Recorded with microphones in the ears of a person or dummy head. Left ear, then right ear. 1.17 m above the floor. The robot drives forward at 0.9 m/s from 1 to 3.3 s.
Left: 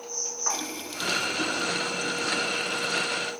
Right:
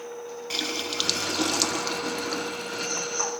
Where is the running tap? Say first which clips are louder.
Right 4 dB; 40° right (ahead or behind); by 3.3 s 20° right (ahead or behind).